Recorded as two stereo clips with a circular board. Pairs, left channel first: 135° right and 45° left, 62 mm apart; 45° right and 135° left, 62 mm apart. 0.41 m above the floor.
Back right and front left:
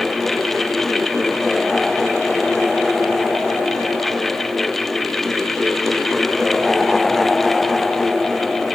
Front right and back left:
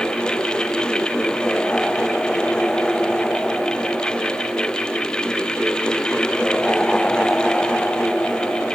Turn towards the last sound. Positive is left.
No sound to turn to.